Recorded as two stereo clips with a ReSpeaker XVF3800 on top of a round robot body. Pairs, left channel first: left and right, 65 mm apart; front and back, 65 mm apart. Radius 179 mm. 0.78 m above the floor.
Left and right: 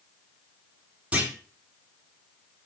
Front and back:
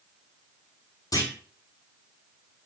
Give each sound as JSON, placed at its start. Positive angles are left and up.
{"t": 1.1, "sound": "a clunk", "azimuth_deg": -20, "distance_m": 6.0}